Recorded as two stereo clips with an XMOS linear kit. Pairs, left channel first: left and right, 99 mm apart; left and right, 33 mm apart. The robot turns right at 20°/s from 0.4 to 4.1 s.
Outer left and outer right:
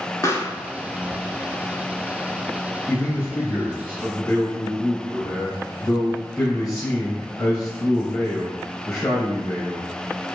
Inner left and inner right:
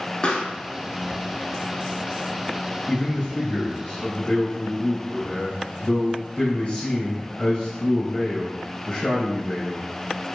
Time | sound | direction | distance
0.2 | a pop | 30° left (ahead or behind) | 0.6 m
2.9 | a man speaking | 35° left (ahead or behind) | 1.5 m